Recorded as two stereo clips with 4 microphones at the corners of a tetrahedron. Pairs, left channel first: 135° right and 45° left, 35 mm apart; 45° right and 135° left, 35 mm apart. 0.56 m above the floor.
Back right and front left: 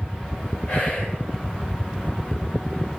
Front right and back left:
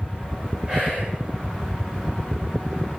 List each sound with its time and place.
0.7 s whispering: 155° right, 2.5 m